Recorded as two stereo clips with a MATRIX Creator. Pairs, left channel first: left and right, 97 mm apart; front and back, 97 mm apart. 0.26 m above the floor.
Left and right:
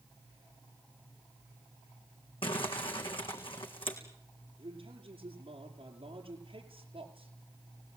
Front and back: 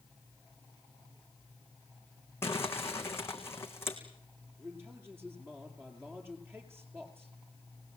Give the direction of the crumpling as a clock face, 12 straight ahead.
10 o'clock.